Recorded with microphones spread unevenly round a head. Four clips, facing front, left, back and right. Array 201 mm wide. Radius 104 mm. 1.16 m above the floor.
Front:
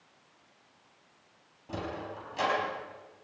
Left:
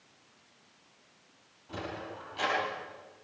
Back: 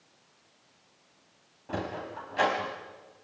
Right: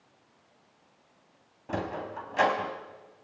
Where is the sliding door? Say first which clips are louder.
Right 6 dB, back 2 dB; 110° right, 4 m.